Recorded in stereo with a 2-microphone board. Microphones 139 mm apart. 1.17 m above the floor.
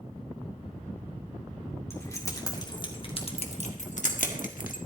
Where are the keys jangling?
20° left (ahead or behind), 2.5 m; by 4.8 s 80° left, 1.8 m.